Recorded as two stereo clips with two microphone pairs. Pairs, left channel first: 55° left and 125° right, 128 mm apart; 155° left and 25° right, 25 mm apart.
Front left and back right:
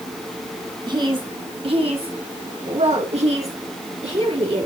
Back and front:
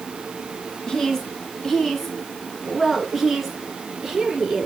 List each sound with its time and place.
0.9 s a woman speaking: 155° right, 1.8 m; by 4.7 s 100° right, 3.5 m